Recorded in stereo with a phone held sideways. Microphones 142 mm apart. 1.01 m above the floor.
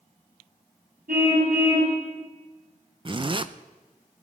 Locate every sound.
1.1 s a car horn: 85° right, 4.5 m
3.0 s a zipper: 35° right (ahead or behind), 0.5 m